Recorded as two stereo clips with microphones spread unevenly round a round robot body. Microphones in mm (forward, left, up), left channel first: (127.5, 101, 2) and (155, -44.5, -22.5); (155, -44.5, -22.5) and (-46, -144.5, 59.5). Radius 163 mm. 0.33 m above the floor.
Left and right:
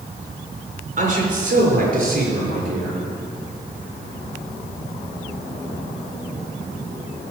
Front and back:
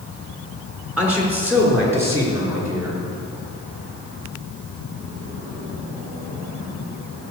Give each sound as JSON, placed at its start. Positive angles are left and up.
{"t": 1.0, "sound": "a man speaking", "azimuth_deg": -65, "distance_m": 4.5}